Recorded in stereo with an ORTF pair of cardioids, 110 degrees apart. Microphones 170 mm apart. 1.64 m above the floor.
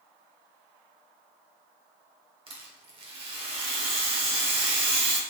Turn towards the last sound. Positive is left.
turn(degrees=-30)